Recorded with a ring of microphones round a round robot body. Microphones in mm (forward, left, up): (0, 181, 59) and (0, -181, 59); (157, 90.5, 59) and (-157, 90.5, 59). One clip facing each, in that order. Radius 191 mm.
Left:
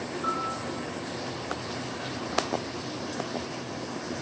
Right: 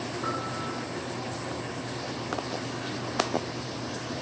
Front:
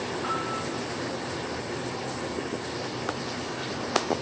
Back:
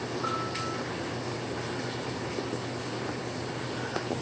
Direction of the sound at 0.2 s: 160° right.